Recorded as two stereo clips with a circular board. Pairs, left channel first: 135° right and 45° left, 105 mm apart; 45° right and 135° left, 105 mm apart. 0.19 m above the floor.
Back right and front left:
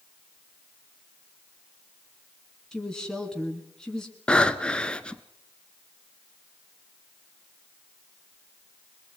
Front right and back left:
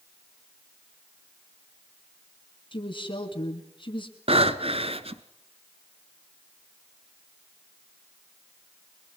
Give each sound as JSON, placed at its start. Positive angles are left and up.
{"t": 2.7, "sound": "a woman speaking", "azimuth_deg": -50, "distance_m": 2.5}
{"t": 4.3, "sound": "breathing", "azimuth_deg": 145, "distance_m": 1.1}